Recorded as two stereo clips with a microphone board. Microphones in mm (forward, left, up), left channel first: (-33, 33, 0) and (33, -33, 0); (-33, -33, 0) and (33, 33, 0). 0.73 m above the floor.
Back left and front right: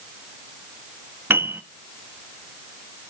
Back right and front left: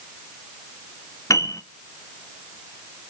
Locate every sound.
1.3 s a piano: 100° right, 0.6 m